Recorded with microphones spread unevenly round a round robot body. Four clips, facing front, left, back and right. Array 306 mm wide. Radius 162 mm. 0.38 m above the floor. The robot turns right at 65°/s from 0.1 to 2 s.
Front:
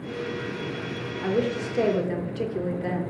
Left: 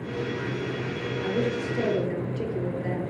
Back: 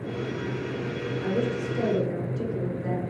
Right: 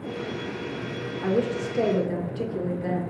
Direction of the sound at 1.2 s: 65° right.